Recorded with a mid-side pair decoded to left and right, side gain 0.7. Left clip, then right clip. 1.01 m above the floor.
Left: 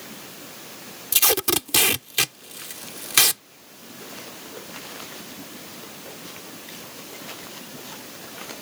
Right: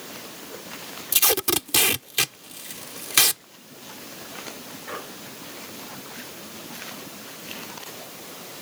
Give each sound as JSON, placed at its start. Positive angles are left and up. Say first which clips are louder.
{"t": 1.1, "sound": "tape being pulled", "louder": "left 1 dB", "azimuth_deg": 5}